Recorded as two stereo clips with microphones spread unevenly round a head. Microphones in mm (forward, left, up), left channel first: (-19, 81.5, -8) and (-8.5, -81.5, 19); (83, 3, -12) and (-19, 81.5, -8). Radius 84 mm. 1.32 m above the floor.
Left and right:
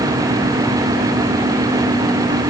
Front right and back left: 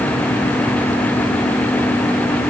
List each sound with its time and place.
Only background noise.